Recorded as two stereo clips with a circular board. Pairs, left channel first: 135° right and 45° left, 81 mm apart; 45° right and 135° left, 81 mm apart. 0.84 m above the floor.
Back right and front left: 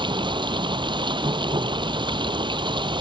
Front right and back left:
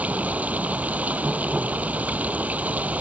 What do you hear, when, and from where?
0.0 s running water: 60° left